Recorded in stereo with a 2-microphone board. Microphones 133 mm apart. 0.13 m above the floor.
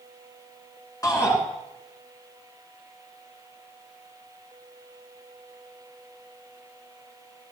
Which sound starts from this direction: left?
A shout, at 1.0 s.